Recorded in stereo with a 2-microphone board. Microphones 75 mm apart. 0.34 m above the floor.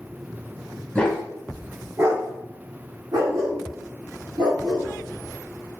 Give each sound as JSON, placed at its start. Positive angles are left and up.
{"t": 0.9, "sound": "a dog barking", "side_deg": 15, "distance_m": 0.6}